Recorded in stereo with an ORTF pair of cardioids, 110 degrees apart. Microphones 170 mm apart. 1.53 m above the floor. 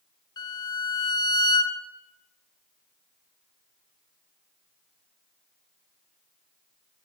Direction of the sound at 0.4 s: 25° left.